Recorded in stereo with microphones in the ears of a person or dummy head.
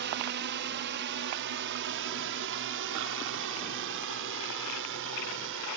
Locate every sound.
0.0 s a drone: 50° right (ahead or behind); by 5.8 s 60° right (ahead or behind)